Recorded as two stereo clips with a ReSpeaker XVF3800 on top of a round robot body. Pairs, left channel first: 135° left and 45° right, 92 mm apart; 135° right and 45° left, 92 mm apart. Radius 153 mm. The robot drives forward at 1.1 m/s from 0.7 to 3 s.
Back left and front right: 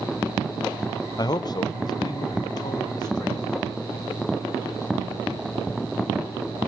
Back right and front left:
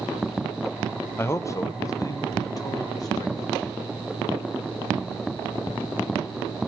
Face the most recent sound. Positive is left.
turn(degrees=175)